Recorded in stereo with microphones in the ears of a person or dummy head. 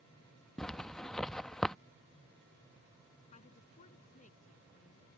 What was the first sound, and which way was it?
A zipper, 5° left (ahead or behind).